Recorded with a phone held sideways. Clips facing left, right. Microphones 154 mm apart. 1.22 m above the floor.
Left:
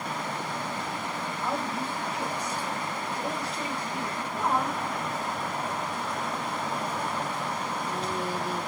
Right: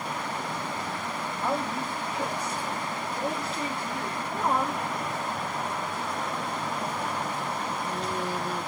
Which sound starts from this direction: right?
A woman speaking, at 1.4 s.